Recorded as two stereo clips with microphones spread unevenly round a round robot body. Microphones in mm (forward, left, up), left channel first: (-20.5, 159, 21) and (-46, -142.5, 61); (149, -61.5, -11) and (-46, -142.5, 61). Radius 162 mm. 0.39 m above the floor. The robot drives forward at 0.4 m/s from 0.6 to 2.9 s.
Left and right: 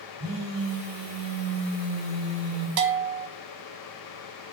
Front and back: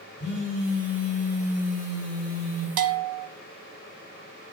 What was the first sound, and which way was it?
A phone buzzing, 65° right.